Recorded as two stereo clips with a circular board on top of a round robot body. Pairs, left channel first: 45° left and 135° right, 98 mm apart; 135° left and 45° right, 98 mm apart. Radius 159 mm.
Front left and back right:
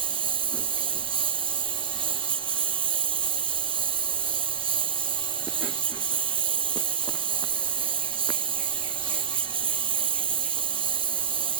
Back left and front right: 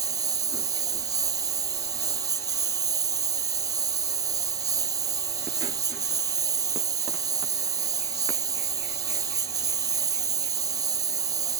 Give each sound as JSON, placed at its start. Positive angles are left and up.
{"t": 0.0, "sound": "a lawn mower", "azimuth_deg": -100}